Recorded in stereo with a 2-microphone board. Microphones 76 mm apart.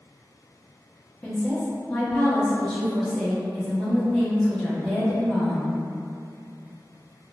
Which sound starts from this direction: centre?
A woman speaking, at 1.2 s.